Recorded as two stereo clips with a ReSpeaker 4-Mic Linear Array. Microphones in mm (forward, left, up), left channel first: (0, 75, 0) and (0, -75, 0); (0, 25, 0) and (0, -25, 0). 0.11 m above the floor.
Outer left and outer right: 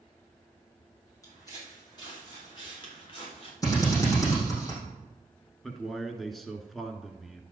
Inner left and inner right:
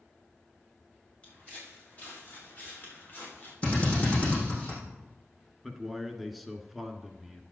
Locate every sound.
1.2 s footsteps: 25° left (ahead or behind), 6.5 m; by 3.5 s 40° left (ahead or behind), 6 m
3.6 s a drill: 25° left (ahead or behind), 6.5 m
5.6 s a man speaking: centre (ahead or behind), 1.1 m